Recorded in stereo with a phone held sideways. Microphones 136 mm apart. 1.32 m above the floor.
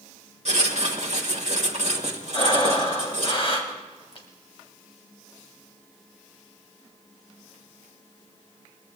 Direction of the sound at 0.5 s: 55° right (ahead or behind).